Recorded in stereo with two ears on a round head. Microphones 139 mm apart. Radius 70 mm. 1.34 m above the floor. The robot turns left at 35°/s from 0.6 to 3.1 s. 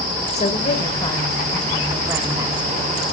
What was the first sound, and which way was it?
A woman speaking, 40° left.